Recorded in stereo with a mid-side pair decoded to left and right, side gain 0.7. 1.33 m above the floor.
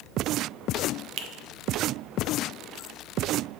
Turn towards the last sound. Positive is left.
turn(degrees=-55)